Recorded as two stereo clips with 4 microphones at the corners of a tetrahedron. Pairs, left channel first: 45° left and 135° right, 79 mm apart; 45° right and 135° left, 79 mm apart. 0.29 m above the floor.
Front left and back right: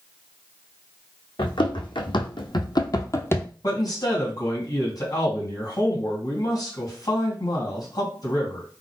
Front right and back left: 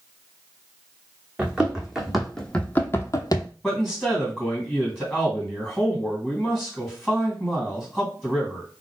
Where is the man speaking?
45° left, 2 m.